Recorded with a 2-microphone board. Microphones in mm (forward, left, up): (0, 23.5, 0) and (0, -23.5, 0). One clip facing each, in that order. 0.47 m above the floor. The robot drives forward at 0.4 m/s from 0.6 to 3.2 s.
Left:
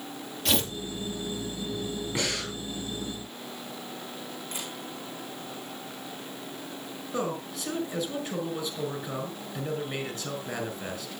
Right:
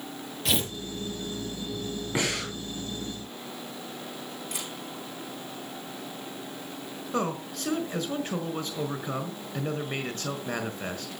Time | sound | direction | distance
0.5 | tearing paper | centre (ahead or behind) | 3 m
2.1 | breathing | 30° right (ahead or behind) | 6 m
4.5 | a camera shutter | 75° right (ahead or behind) | 9 m
7.1 | a man speaking | 45° right (ahead or behind) | 4.5 m